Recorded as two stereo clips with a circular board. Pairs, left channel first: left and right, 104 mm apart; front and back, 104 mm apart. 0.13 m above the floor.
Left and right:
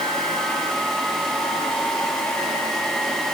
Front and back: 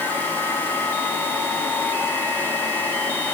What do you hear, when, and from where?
Only background noise.